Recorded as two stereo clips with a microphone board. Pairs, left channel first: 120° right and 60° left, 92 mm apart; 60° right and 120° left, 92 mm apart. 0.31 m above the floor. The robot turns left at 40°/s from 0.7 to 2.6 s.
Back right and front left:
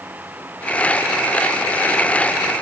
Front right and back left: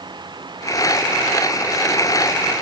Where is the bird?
No bird in this recording.